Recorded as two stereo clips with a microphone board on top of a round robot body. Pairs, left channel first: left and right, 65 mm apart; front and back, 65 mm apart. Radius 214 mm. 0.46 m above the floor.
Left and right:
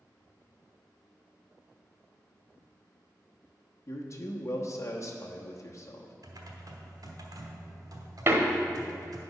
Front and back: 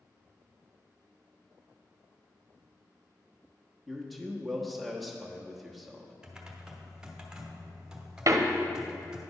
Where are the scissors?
No scissors in this recording.